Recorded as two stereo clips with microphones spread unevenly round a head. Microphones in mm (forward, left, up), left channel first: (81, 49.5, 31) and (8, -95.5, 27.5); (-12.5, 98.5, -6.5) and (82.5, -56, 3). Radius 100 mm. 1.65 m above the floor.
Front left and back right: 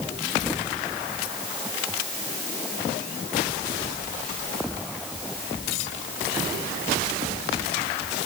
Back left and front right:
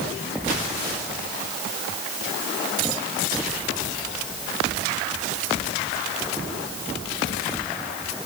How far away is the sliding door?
I don't hear a sliding door.